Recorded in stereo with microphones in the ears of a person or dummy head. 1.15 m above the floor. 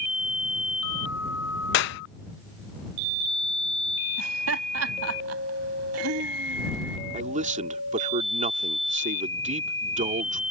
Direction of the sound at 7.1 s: 40° right (ahead or behind).